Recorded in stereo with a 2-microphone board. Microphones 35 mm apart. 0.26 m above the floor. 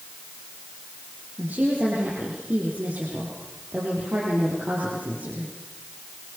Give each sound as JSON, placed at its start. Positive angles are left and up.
{"t": 1.4, "sound": "a woman speaking", "side_deg": -60, "distance_m": 7.5}